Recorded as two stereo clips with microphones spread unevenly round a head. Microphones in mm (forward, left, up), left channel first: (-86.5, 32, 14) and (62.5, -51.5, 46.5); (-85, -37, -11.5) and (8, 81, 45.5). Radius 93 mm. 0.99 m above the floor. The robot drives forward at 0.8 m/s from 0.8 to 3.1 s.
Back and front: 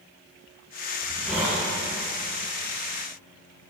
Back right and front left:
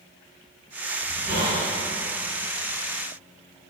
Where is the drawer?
No drawer in this recording.